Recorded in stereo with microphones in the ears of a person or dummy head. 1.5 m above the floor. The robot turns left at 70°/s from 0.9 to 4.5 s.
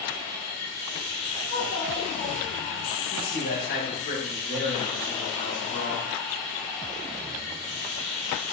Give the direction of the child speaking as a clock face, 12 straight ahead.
5 o'clock.